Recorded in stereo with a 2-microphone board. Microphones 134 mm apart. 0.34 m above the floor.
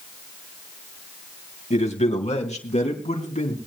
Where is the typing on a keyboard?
No typing on a keyboard in this recording.